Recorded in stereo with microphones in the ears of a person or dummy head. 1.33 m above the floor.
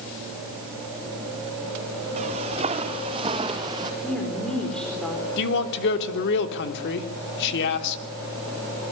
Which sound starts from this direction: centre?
A woman speaking, at 4.0 s.